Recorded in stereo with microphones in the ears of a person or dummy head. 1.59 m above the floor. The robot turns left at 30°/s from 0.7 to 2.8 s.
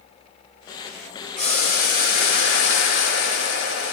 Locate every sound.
1.4 s boiling: 145° left, 3 m; by 3.9 s 100° left, 3 m